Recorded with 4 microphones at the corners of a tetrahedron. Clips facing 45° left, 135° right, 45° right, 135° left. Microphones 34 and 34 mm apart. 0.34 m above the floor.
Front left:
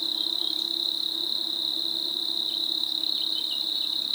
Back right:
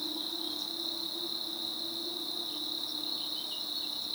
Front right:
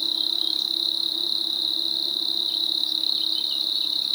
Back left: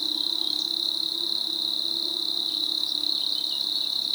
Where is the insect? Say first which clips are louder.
Front left 8 dB, front right 2 dB; 30° left, 0.7 m.